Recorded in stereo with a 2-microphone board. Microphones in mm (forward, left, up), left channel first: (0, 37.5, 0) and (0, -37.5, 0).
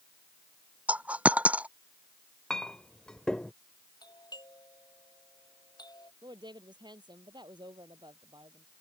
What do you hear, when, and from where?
0.9 s a dropped coin: 20° right (ahead or behind)
2.5 s a clink: 10° left (ahead or behind)
4.0 s a doorbell: 70° left (ahead or behind)
6.2 s a woman speaking: 85° right